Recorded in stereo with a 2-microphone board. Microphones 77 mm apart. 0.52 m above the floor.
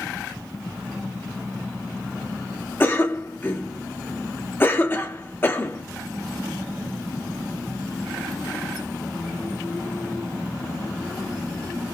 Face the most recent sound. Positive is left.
turn(degrees=25)  # may be behind; listen again after turning